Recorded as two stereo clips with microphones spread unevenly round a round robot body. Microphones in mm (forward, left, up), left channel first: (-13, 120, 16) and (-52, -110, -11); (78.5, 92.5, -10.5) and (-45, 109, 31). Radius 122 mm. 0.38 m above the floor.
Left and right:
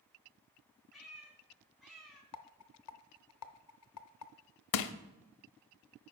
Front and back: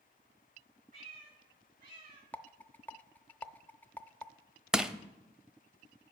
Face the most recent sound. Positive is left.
turn(degrees=85)